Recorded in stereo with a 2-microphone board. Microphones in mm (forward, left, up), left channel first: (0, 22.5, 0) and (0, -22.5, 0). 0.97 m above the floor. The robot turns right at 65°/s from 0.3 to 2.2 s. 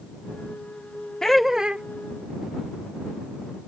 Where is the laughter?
165° left; by 1.8 s 155° right.